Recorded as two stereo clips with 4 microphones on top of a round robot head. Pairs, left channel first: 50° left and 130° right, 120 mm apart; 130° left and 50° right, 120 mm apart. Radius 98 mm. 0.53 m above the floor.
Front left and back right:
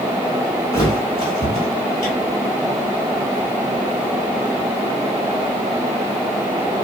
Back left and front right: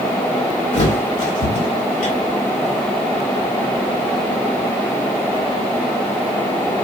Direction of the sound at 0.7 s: 110° left.